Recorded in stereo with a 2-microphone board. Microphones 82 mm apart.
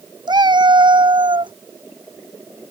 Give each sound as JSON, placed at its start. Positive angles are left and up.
{"t": 0.3, "sound": "a cat meowing", "side_deg": -60}